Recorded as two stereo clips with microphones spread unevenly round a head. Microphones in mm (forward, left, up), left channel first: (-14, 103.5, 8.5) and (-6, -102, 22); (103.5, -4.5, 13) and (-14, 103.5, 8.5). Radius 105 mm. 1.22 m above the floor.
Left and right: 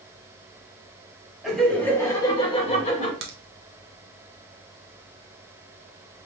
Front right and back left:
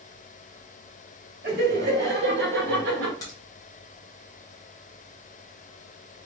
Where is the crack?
115° right, 1.1 m.